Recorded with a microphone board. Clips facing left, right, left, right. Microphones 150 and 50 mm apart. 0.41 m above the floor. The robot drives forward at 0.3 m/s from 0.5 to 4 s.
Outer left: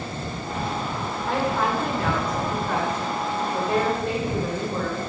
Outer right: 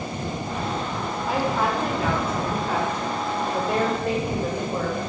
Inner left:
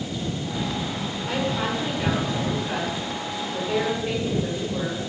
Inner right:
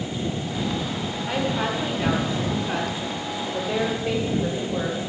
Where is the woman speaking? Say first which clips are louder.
Even, inner right 1 dB; 5° right (ahead or behind), 1.4 m.